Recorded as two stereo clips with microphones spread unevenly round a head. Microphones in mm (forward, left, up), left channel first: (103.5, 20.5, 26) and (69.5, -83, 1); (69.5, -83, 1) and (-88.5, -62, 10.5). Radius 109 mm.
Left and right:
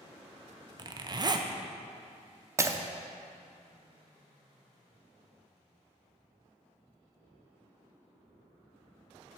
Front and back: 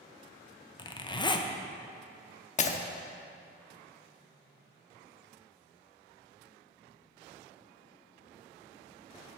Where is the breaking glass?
40° right, 0.7 m.